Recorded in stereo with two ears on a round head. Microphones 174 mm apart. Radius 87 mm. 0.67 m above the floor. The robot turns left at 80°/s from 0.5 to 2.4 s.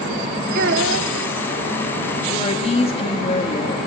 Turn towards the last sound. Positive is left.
turn(degrees=30)  # may be behind; listen again after turning